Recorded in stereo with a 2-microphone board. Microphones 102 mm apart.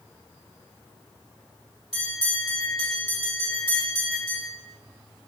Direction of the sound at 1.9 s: 75° left (ahead or behind).